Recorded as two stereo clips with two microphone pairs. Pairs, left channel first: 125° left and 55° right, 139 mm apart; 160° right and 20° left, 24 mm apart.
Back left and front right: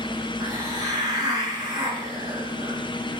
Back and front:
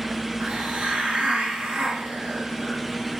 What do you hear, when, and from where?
0.4 s a hiss: straight ahead, 1.2 m